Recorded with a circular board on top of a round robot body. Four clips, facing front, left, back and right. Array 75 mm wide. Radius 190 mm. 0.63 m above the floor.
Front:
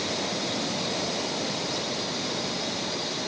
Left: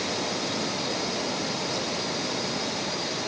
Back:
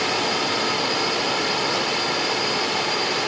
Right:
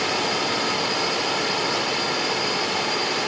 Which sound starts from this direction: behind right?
A drone, at 0.0 s.